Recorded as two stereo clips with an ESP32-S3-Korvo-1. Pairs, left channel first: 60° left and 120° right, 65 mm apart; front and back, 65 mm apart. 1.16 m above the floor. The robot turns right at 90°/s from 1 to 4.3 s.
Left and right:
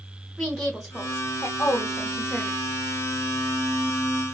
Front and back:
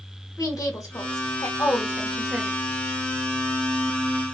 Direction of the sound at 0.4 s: 25° right.